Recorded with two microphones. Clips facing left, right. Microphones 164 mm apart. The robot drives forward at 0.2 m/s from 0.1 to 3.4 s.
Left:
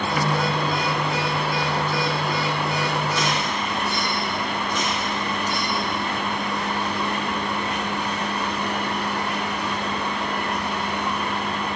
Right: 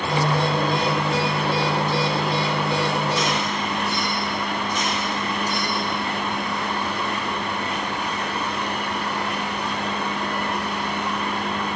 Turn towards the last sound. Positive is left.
No sound to turn to.